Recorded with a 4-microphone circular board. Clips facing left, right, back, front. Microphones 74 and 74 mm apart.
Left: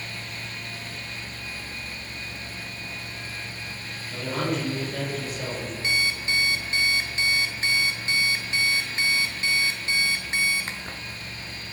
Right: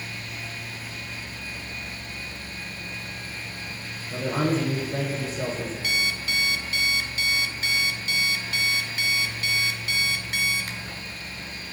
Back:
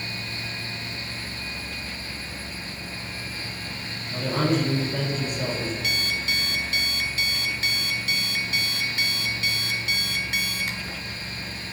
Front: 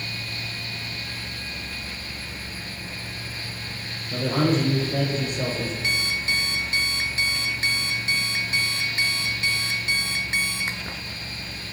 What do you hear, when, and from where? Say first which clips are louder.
4.1 s a woman speaking: right 3 dB, front 2 dB; 35° right, 3.5 m
5.8 s an alarm clock: left 3 dB, front 1 dB; 45° left, 0.7 m